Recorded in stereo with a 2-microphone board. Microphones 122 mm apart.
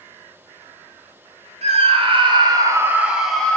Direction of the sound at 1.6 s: 55° right (ahead or behind).